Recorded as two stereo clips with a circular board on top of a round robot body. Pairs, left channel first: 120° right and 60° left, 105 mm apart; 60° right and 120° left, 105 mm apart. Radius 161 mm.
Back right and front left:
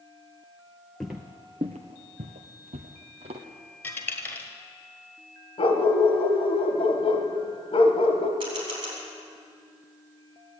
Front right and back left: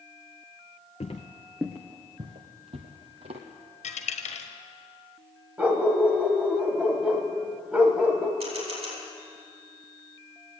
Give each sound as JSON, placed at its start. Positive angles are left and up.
{"t": 1.0, "sound": "footsteps", "azimuth_deg": -30, "distance_m": 0.6}
{"t": 3.8, "sound": "a dropped coin", "azimuth_deg": -45, "distance_m": 1.3}
{"t": 5.6, "sound": "a dog barking", "azimuth_deg": -160, "distance_m": 1.3}
{"t": 8.4, "sound": "a camera shutter", "azimuth_deg": 100, "distance_m": 4.5}